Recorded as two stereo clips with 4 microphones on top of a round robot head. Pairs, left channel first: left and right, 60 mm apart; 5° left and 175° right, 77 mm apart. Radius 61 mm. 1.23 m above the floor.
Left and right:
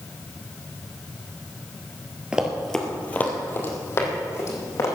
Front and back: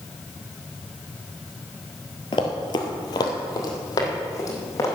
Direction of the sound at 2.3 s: 25° right.